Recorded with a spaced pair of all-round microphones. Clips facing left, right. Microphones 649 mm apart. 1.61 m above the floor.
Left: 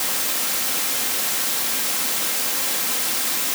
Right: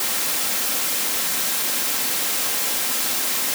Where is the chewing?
I don't hear chewing.